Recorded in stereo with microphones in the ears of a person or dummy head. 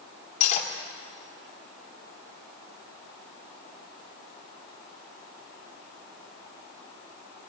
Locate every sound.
0.4 s cutlery clinking: 40° left (ahead or behind), 2.5 m